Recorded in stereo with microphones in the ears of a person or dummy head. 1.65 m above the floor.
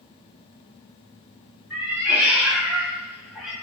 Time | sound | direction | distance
1.7 | a cat meowing | 10° right (ahead or behind) | 1.7 m